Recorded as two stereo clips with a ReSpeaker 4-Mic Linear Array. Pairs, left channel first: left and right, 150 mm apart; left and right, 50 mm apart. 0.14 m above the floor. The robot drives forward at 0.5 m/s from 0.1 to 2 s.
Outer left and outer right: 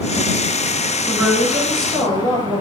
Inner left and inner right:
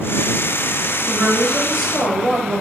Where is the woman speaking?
5° left (ahead or behind), 1.2 m.